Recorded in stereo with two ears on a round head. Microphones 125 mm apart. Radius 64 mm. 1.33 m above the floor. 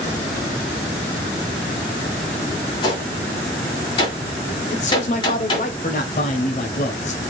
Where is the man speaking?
50° left (ahead or behind), 0.9 m.